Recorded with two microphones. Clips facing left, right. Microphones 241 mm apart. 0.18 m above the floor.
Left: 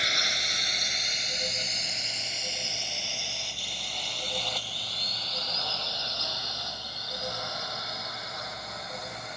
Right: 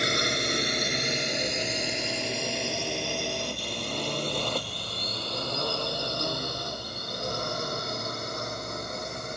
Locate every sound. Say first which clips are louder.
0.0 s a drone: right 11 dB; 55° right (ahead or behind); by 9.4 s 50° right (ahead or behind)